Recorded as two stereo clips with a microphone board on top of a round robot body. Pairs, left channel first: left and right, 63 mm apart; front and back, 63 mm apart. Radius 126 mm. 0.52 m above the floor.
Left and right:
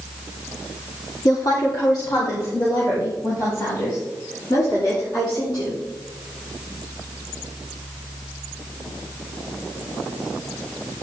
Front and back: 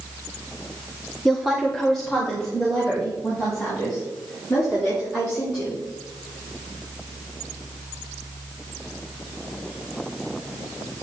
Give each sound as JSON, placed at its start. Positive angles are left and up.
{"t": 1.2, "sound": "a woman speaking", "azimuth_deg": 90, "distance_m": 1.3}